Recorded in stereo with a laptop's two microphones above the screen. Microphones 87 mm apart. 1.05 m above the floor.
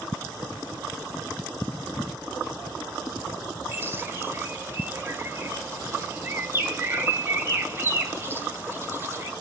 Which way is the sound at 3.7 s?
30° right (ahead or behind).